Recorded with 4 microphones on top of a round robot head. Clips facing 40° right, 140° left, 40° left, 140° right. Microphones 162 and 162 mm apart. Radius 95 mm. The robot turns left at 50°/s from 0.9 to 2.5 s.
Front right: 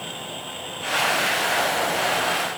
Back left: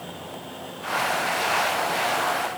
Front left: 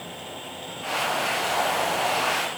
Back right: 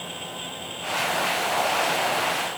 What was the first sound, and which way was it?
Only background noise.